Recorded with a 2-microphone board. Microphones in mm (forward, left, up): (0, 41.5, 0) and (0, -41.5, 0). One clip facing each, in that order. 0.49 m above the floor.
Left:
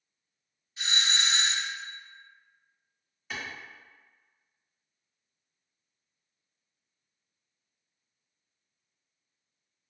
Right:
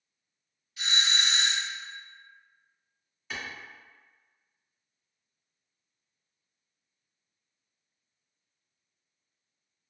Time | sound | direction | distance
0.8 | a doorbell | 30° left (ahead or behind) | 1.4 m
3.3 | a clap | centre (ahead or behind) | 1.1 m